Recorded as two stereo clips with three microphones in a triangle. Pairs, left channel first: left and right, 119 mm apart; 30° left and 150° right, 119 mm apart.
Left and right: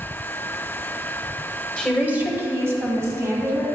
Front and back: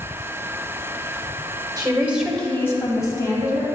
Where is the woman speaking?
175° right, 1.0 m; by 3.6 s 25° right, 2.5 m.